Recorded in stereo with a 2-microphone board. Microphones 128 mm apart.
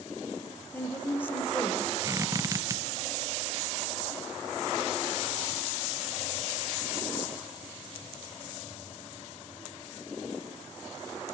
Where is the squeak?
25° right (ahead or behind), 0.6 m.